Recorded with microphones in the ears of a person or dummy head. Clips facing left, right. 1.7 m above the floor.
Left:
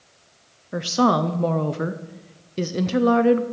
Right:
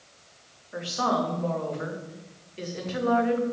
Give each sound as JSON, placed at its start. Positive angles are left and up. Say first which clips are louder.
{"t": 0.7, "sound": "a woman speaking", "louder": "left 8 dB", "side_deg": 55, "distance_m": 0.6}